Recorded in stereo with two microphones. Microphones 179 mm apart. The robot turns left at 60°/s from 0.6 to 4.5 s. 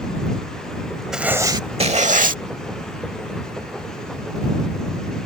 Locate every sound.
1.1 s writing: 5° right; by 2.4 s 80° right